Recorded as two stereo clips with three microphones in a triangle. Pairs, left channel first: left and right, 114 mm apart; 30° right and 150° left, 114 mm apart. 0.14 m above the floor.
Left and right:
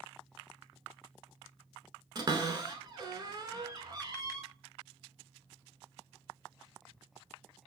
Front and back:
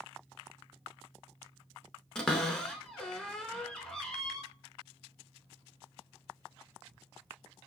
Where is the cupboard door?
110° right, 0.6 m.